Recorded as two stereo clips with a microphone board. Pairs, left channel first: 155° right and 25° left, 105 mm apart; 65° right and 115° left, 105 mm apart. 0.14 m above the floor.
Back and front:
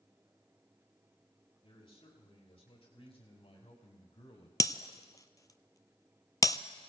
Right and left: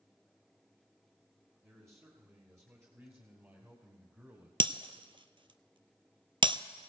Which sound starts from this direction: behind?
A man speaking, at 1.6 s.